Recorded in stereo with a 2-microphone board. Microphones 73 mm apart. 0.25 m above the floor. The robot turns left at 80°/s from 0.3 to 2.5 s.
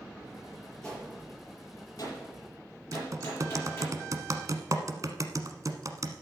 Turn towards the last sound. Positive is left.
turn(degrees=-55)  # may be behind; listen again after turning